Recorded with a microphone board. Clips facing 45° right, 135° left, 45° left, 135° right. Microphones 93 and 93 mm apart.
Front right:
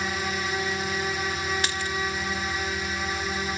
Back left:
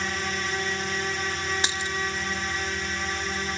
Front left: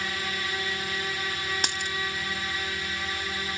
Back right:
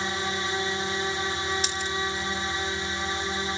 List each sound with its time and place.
0.0 s a drone: 120° right
1.6 s a dropped coin: 70° left